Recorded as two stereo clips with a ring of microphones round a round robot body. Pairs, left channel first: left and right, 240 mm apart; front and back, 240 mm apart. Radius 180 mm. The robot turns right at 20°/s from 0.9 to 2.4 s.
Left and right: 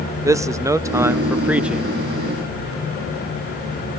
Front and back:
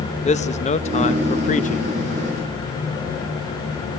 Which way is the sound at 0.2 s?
25° right.